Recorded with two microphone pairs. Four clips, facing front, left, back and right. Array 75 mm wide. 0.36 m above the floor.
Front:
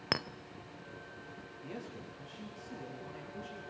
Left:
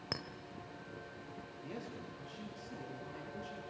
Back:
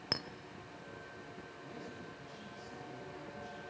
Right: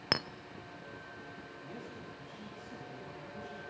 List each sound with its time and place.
0.1 s a clink: 50° right, 0.5 m
1.6 s a man speaking: 40° left, 8.5 m